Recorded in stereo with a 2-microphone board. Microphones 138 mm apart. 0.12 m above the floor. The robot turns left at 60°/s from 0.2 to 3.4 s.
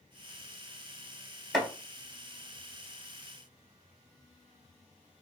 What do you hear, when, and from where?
1.5 s chopping: centre (ahead or behind), 1.1 m; by 1.7 s 5° left (ahead or behind), 1.1 m